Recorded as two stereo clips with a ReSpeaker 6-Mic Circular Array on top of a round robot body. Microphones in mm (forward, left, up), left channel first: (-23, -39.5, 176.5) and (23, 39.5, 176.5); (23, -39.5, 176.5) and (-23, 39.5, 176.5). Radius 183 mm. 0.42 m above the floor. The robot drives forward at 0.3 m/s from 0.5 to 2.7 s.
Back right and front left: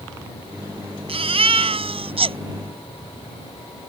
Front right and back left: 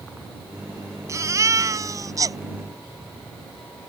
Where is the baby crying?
60° left; by 2.4 s 70° left.